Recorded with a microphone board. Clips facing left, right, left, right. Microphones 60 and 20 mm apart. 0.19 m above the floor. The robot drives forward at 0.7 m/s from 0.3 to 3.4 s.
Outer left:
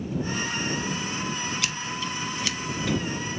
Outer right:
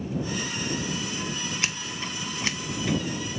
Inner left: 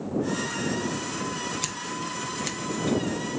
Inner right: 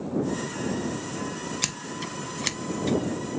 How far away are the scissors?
About 0.7 m.